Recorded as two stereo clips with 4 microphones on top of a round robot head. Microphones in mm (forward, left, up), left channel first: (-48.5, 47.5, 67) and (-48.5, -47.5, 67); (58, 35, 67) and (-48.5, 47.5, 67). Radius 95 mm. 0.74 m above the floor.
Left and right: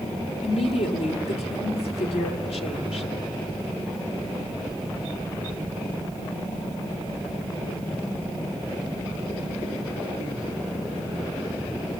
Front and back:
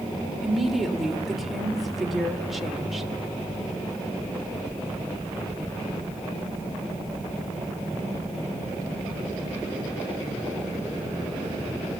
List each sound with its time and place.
0.4 s a woman speaking: 85° left, 2 m